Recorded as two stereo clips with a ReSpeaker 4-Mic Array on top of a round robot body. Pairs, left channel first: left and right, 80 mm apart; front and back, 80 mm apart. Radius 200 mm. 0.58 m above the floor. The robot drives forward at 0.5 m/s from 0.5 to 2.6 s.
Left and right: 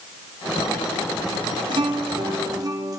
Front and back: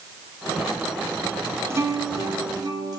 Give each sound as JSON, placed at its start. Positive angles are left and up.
{"t": 1.7, "sound": "a guitar", "azimuth_deg": -120, "distance_m": 1.1}